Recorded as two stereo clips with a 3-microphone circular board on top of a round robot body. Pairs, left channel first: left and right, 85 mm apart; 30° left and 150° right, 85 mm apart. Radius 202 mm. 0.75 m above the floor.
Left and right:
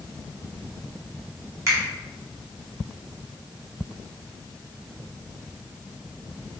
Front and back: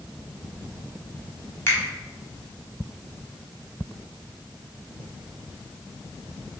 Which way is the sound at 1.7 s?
35° right.